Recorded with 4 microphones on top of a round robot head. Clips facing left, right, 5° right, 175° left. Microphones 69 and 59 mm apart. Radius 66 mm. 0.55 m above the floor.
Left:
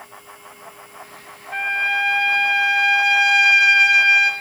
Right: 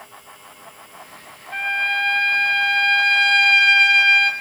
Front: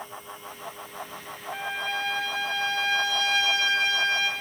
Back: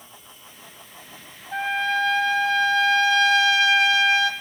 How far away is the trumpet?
About 0.7 m.